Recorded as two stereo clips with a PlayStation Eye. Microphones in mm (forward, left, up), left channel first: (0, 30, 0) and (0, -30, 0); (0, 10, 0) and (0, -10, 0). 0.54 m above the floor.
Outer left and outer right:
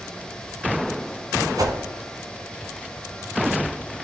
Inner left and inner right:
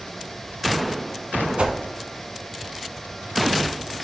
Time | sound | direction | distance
1.6 | a whoosh | 80° right | 1.1 m